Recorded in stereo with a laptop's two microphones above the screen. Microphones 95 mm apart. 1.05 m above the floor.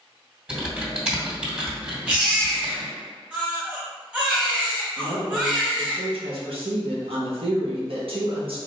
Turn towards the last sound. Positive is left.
turn(degrees=-70)  # may be behind; listen again after turning